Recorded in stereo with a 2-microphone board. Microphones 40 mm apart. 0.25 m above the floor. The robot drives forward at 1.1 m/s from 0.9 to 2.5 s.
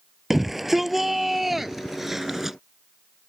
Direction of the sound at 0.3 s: 5° right (ahead or behind).